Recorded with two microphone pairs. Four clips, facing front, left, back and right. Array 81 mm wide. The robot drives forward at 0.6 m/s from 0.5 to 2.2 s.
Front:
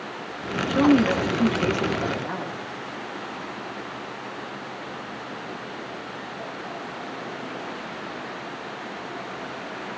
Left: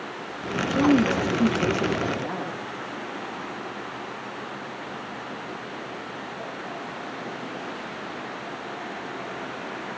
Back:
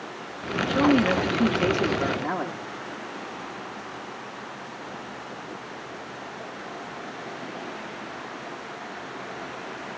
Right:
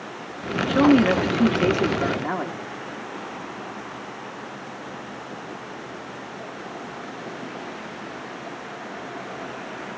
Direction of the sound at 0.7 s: 65° right.